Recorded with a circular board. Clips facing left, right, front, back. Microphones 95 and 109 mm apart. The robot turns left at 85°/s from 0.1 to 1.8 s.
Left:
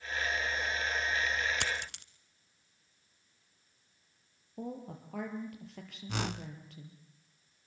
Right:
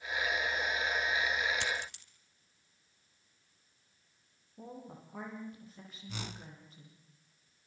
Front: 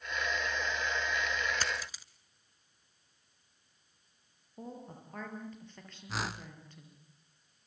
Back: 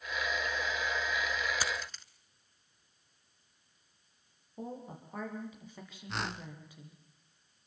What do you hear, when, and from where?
1.6 s a dropped coin: 100° left, 1.2 m; by 2.0 s 85° left, 1.2 m
4.6 s a woman speaking: 100° left, 6.5 m
6.1 s a whoosh: 85° left, 0.7 m